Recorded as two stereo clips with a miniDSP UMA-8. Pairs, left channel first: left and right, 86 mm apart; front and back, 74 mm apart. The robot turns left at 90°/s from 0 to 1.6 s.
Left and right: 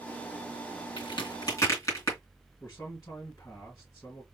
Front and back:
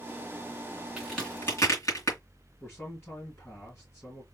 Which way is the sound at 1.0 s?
100° left.